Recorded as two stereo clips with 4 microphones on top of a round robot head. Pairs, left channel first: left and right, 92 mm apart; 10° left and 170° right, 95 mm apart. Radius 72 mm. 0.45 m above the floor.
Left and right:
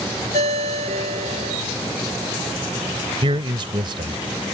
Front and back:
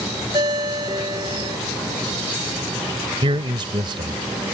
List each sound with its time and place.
0.3 s a ringtone: 110° right
3.2 s a man speaking: 130° right